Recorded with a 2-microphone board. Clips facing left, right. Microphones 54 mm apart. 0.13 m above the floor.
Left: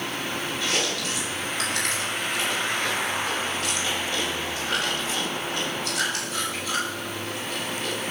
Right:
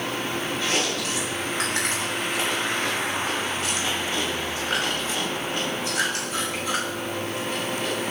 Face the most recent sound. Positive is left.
turn(degrees=-30)  # may be behind; listen again after turning